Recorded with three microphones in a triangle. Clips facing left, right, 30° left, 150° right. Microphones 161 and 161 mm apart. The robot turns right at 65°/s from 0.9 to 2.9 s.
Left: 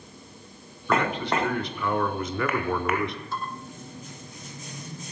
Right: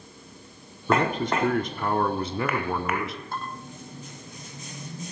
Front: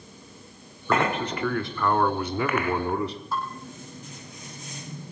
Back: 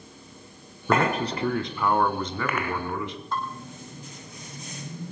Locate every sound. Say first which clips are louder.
0.9 s a man speaking: right 1 dB, back 1 dB; 135° right, 1.8 m; by 3.2 s 5° right, 1.8 m
3.3 s dishes clattering: left 1 dB, back 3 dB; 55° right, 6 m